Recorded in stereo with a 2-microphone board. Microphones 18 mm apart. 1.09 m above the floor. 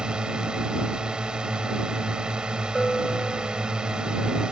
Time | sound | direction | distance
0.0 | a drone | 50° right (ahead or behind) | ?
2.8 | a bell | 25° left (ahead or behind) | ?